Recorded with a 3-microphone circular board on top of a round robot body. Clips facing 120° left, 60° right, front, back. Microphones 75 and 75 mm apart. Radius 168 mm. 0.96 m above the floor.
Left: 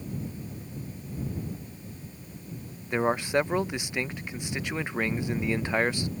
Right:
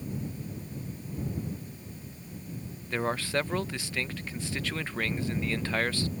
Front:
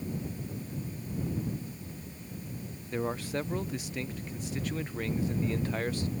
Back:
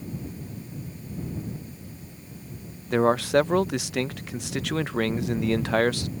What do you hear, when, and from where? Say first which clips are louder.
2.9 s a man speaking: left 5 dB, back 13 dB; 165° right